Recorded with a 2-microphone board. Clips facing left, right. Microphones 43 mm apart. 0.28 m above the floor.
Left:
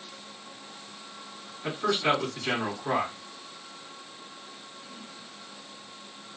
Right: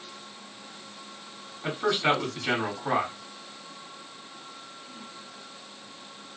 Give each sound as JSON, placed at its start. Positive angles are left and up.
{"t": 1.6, "sound": "a man speaking", "side_deg": -35, "distance_m": 2.0}